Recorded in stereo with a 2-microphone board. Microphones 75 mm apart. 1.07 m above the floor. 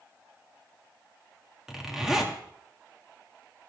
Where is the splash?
I don't hear a splash.